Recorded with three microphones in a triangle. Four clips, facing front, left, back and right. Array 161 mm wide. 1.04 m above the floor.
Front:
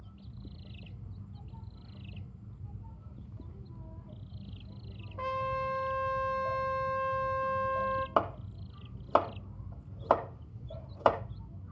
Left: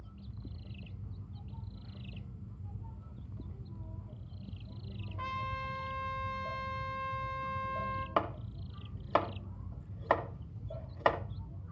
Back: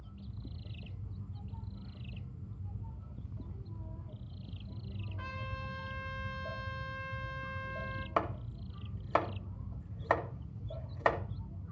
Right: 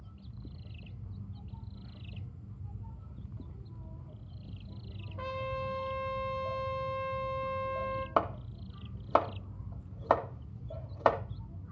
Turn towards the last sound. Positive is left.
turn(degrees=-35)